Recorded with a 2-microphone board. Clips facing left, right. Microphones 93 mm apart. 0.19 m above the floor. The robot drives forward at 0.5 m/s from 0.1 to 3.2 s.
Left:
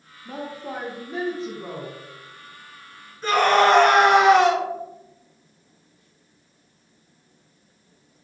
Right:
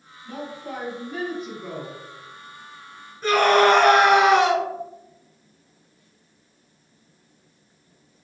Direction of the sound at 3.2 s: 10° right (ahead or behind).